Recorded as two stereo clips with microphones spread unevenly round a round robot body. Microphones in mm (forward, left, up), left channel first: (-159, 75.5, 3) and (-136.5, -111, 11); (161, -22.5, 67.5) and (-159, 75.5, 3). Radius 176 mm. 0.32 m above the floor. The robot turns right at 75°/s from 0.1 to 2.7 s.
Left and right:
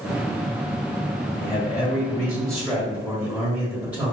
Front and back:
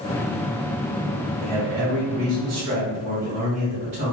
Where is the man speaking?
100° left, 1.7 m; by 4.1 s 160° right, 1.7 m.